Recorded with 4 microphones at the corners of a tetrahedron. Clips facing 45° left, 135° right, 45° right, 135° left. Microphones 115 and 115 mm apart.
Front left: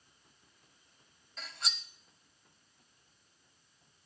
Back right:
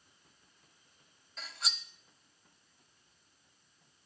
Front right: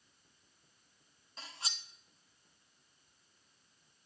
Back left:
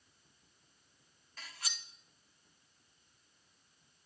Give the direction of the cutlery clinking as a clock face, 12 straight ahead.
2 o'clock.